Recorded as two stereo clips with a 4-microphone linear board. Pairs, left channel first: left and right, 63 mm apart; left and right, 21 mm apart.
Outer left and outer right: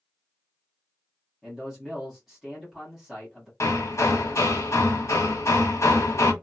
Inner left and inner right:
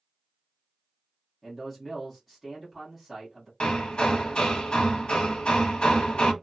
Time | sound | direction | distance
1.4 | a man speaking | 5° right (ahead or behind) | 1.4 m
3.6 | hammering | 50° left (ahead or behind) | 0.8 m